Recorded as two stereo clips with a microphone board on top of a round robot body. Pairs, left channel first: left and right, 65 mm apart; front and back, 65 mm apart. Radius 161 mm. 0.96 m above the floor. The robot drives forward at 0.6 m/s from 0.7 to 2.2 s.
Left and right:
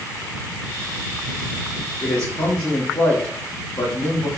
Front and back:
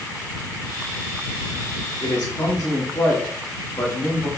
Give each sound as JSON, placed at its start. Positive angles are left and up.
{"t": 2.0, "sound": "a man speaking", "azimuth_deg": 40, "distance_m": 3.5}